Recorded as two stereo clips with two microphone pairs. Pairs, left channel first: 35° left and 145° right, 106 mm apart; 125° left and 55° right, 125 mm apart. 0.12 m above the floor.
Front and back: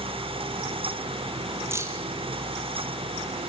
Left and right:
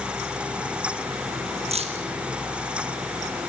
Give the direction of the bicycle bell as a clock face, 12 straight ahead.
I don't hear a bicycle bell.